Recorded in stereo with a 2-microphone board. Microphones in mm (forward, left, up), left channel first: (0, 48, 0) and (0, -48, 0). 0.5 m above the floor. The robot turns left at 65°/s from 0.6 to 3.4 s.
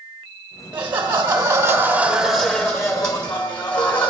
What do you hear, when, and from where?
0.7 s laughter: 15° right (ahead or behind), 1.1 m; by 4.1 s 15° left (ahead or behind), 1.1 m